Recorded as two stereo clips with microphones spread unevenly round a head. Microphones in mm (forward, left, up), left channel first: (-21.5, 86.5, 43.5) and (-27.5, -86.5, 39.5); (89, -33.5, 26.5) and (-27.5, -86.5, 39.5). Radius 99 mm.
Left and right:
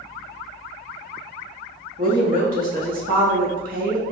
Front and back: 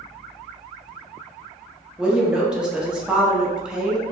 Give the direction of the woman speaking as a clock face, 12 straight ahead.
2 o'clock.